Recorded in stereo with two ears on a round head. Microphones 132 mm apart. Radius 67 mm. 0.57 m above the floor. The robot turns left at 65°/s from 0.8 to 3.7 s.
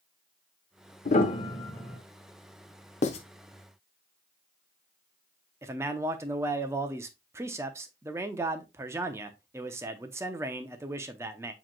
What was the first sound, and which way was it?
A piano, 50° left (ahead or behind).